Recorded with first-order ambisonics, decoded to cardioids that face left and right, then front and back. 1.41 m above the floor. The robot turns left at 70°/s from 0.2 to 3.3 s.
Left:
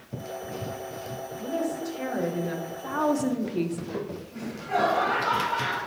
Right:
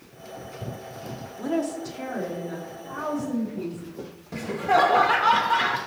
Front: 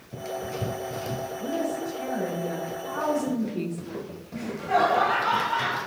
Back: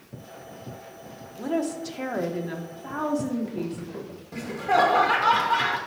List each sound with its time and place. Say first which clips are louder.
1.4 s a woman speaking: right 3 dB, back 3 dB; 140° right, 1.0 m; by 3.8 s 85° left, 1.0 m
4.3 s laughter: right 8 dB, back 2 dB; 115° right, 1.4 m